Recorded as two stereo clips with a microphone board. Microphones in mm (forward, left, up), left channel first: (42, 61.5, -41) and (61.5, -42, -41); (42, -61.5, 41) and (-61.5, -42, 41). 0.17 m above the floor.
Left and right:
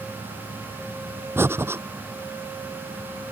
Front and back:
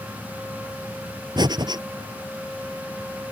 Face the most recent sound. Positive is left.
turn(degrees=-145)